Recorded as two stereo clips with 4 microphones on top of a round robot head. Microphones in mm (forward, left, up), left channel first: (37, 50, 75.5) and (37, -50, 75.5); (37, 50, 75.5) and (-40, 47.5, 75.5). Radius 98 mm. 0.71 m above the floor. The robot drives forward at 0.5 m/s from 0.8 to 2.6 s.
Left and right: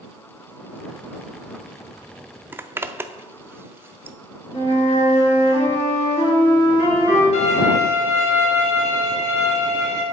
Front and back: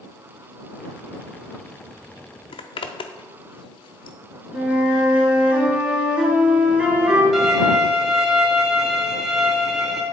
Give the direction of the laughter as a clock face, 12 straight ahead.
No laughter in this recording.